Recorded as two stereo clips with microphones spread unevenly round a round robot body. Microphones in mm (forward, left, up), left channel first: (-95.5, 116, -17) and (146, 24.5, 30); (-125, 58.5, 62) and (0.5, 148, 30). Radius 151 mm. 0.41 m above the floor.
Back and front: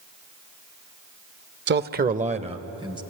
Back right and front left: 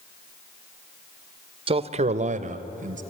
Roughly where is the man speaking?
Ahead.